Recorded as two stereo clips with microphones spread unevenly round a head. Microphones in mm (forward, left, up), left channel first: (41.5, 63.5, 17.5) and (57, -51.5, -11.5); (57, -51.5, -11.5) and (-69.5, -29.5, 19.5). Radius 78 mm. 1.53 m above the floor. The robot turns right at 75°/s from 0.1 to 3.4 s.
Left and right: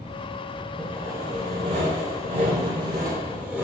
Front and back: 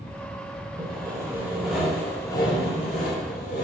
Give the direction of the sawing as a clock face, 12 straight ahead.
6 o'clock.